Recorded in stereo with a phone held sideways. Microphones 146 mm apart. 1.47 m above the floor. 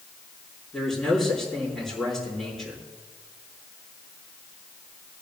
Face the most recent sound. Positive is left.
turn(degrees=5)  # may be behind; listen again after turning